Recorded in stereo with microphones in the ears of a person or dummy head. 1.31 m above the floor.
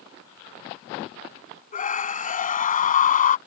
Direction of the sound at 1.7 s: 40° left (ahead or behind).